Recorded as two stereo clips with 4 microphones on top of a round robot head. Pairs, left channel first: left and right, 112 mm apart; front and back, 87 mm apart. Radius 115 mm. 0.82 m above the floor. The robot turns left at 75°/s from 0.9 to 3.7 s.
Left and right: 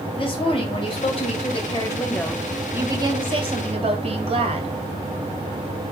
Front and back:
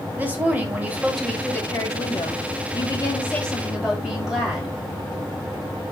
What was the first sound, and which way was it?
A woman speaking, 115° left.